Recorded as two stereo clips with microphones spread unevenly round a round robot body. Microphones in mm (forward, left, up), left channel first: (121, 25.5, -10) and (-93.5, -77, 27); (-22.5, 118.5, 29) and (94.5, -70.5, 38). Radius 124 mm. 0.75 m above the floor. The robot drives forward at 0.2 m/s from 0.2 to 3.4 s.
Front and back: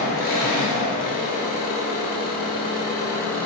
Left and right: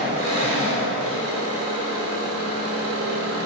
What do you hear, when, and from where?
0.0 s an engine running: 25° right, 1.0 m; by 3.5 s 60° right, 0.6 m